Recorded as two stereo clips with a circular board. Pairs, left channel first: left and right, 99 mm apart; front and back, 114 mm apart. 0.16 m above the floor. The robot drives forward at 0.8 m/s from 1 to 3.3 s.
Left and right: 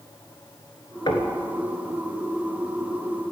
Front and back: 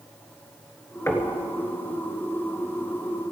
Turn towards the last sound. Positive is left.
turn(degrees=140)